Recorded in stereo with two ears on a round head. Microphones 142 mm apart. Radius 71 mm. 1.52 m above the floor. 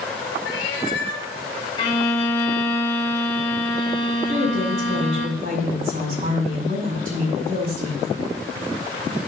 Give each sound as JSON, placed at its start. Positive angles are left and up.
{"t": 0.5, "sound": "a cat meowing", "side_deg": 70, "distance_m": 2.5}
{"t": 1.8, "sound": "a violin", "side_deg": 35, "distance_m": 2.5}
{"t": 4.3, "sound": "a woman speaking", "side_deg": -50, "distance_m": 4.5}